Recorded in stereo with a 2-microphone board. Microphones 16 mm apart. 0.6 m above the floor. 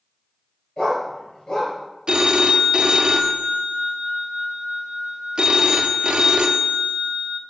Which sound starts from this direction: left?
A dog barking, at 0.8 s.